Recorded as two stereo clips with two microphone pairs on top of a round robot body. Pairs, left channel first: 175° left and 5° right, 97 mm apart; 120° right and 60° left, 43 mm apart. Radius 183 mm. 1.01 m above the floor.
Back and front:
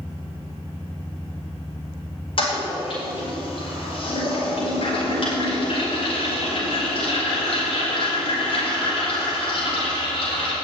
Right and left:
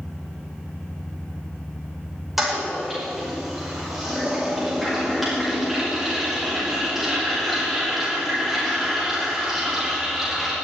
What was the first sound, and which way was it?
A toilet flushing, 150° left.